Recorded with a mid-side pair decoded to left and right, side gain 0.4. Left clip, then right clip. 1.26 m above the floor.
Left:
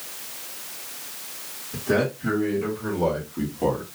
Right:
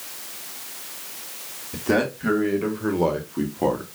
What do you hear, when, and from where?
1.7 s a man speaking: 50° right, 2 m; by 3.9 s 30° right, 0.9 m